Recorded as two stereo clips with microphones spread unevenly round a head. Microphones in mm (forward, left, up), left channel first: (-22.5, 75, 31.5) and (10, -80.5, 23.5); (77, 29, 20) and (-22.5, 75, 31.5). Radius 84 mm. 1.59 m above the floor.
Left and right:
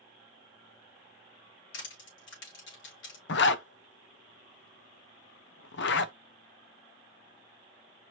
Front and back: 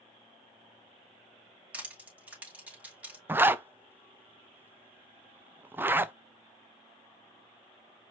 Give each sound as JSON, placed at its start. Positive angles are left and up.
{"t": 1.7, "sound": "crushing", "azimuth_deg": 80, "distance_m": 3.0}
{"t": 3.3, "sound": "a zipper", "azimuth_deg": 80, "distance_m": 0.6}